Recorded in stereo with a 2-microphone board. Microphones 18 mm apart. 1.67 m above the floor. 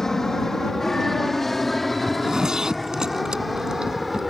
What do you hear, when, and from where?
0.0 s an aircraft: 30° left (ahead or behind); by 4.3 s centre (ahead or behind)
2.1 s a zipper: 45° right (ahead or behind)